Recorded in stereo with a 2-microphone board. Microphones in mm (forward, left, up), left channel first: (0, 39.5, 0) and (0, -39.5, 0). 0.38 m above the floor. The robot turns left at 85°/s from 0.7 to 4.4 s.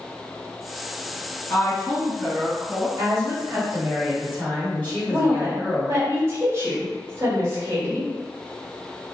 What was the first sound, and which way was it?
A woman speaking, 55° left.